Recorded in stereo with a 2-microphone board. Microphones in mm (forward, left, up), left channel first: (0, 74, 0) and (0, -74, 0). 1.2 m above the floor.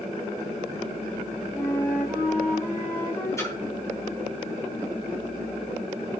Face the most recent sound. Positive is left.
turn(degrees=20)  # may be behind; listen again after turning